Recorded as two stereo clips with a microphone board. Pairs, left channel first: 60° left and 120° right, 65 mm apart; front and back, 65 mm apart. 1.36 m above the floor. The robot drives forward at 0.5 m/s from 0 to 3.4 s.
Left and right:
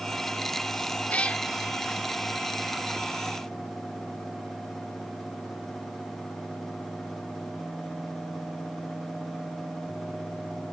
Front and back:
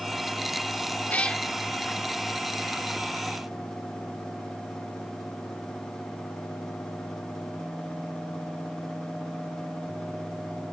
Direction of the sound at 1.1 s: 25° left.